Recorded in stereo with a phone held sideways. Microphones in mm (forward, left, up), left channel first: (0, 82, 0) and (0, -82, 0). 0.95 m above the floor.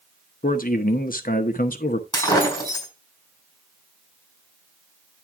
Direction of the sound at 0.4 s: 60° left (ahead or behind).